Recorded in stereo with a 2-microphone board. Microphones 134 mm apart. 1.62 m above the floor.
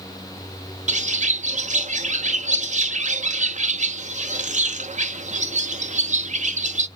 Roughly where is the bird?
Right.